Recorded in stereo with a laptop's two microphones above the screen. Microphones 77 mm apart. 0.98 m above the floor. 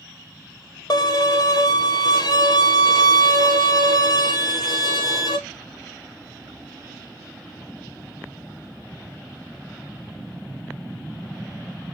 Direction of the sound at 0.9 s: 60° left (ahead or behind).